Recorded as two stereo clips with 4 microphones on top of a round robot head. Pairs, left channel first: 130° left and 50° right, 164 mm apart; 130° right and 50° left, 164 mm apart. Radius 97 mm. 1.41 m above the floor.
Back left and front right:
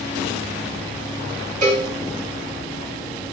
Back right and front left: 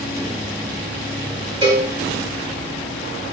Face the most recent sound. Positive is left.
turn(degrees=-10)